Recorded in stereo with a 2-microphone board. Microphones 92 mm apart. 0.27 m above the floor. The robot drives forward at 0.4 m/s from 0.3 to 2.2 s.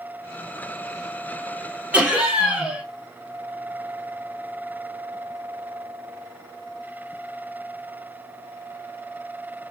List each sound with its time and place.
1.9 s laughter: 15° right (ahead or behind), 1.2 m; by 2.8 s 10° right (ahead or behind), 1.3 m